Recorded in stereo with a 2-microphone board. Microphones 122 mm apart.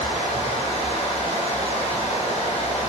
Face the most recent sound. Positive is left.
turn(degrees=55)  # may be behind; listen again after turning